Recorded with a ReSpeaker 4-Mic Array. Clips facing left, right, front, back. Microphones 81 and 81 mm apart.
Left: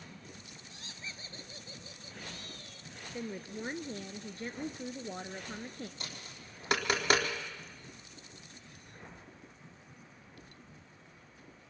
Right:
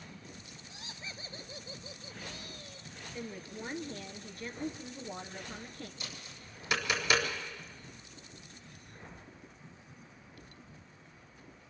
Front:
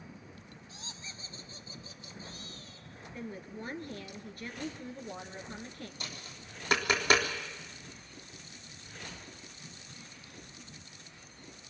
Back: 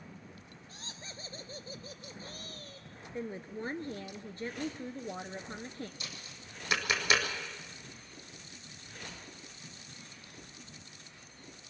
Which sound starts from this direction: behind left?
A woman speaking, at 3.1 s.